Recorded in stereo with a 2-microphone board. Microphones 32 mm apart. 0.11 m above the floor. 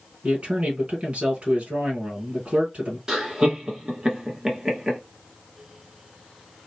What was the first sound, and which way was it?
A man speaking, 40° right (ahead or behind).